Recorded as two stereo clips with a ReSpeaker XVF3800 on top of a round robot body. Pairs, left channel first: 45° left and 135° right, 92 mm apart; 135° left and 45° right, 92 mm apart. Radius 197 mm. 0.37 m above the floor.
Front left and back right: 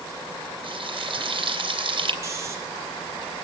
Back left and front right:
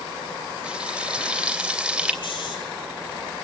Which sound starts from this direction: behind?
Snoring, at 2.2 s.